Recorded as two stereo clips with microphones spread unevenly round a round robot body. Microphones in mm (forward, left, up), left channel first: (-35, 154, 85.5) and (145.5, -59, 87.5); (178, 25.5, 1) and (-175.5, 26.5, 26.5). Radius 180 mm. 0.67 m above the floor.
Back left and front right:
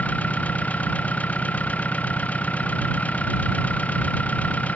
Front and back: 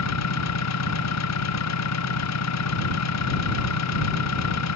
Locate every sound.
0.0 s an engine running: 45° left